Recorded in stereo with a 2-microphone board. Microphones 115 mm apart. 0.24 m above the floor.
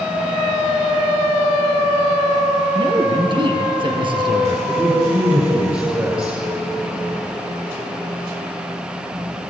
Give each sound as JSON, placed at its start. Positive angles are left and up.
{"t": 2.8, "sound": "a man speaking", "side_deg": -45, "distance_m": 4.0}
{"t": 4.7, "sound": "a man speaking", "side_deg": -20, "distance_m": 6.0}